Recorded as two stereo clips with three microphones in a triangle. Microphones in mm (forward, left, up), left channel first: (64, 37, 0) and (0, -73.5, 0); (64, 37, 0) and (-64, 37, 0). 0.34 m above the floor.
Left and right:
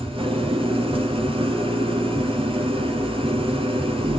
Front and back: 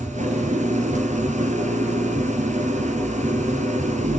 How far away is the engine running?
About 2 m.